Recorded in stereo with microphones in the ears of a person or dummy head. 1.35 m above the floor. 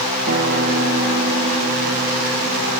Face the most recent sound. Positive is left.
turn(degrees=-45)  # may be behind; listen again after turning